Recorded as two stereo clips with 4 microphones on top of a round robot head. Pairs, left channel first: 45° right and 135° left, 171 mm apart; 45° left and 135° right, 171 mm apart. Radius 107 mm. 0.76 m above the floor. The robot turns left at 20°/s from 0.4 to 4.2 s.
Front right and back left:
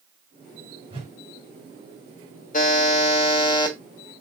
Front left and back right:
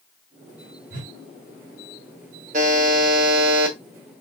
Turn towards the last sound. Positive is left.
turn(degrees=-120)